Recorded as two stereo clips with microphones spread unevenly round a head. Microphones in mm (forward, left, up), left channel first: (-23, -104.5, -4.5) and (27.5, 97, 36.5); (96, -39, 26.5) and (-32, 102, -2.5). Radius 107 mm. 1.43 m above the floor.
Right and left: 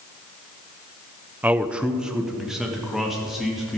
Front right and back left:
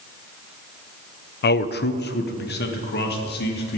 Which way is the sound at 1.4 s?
5° right.